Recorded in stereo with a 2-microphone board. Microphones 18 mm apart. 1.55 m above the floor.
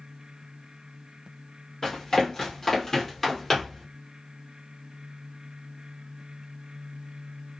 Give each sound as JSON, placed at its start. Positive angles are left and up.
{"t": 1.8, "sound": "running footsteps", "side_deg": 20, "distance_m": 1.8}